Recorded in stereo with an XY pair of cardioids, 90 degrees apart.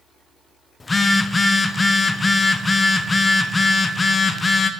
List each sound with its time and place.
0.8 s a phone buzzing: 30° left, 0.7 m